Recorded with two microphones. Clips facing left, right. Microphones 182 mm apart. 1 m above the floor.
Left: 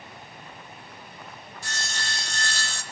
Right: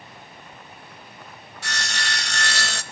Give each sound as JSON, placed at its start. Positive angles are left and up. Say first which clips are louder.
{"t": 1.6, "sound": "sawing", "louder": "right 5 dB", "side_deg": -75, "distance_m": 0.5}